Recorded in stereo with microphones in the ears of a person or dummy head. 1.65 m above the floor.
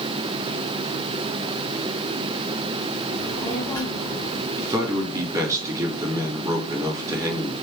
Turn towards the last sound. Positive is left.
turn(degrees=-15)  # may be behind; listen again after turning